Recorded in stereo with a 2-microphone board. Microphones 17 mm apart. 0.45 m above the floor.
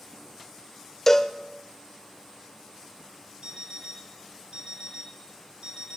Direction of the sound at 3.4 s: 55° right (ahead or behind).